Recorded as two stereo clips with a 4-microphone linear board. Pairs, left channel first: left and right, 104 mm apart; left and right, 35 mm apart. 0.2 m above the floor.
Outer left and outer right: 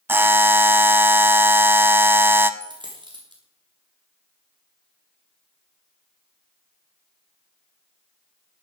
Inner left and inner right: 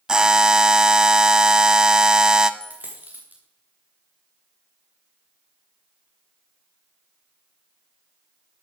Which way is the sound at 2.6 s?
45° right (ahead or behind).